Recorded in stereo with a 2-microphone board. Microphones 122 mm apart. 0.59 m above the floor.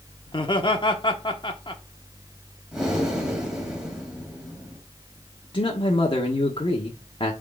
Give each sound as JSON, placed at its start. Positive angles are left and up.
{"t": 0.3, "sound": "laughter", "side_deg": 40, "distance_m": 1.1}
{"t": 2.7, "sound": "breathing", "side_deg": -5, "distance_m": 2.5}
{"t": 5.5, "sound": "a man speaking", "side_deg": 45, "distance_m": 1.1}